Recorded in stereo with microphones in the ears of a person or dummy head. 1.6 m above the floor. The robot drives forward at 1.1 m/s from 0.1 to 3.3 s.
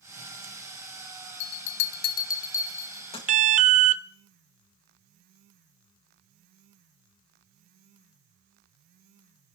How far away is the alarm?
About 0.8 m.